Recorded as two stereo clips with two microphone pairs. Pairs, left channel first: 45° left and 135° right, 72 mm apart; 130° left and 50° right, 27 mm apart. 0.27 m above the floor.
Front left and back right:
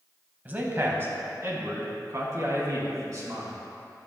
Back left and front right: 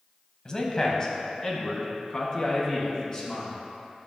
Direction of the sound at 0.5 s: 175° left.